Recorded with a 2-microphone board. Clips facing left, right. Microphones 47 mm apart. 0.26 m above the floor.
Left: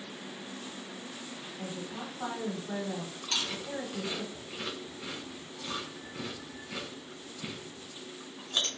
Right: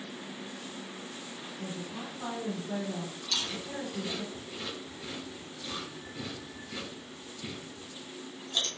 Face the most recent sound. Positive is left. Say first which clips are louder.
# left 2 dB
turn(degrees=35)  # may be behind; listen again after turning